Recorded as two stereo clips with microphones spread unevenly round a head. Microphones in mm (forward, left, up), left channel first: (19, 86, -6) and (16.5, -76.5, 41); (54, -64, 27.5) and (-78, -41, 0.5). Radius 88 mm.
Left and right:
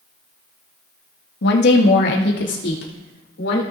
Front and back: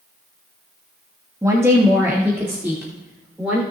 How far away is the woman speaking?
About 1.6 m.